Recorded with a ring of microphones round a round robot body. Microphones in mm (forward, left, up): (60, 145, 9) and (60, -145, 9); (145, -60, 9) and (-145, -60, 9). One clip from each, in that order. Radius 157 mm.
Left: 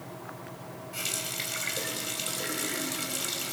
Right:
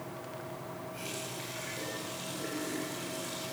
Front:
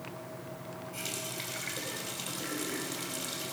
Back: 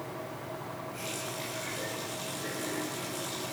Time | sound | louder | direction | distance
0.9 | a running tap | left 10 dB, front 1 dB | 70° left | 4 m